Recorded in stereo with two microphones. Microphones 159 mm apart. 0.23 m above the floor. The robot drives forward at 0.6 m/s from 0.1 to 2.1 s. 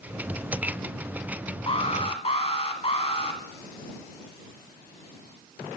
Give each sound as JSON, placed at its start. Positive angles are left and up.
{"t": 1.7, "sound": "an alarm", "side_deg": 35, "distance_m": 2.0}